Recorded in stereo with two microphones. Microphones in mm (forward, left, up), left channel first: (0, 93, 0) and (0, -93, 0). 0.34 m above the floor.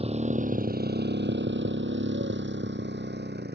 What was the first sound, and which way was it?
A motorcycle, 35° right (ahead or behind).